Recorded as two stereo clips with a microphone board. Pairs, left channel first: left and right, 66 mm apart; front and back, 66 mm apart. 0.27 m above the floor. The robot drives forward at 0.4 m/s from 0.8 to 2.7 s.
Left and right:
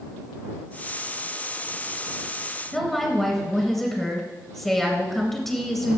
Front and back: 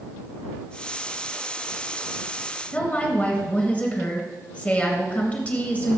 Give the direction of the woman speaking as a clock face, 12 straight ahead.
12 o'clock.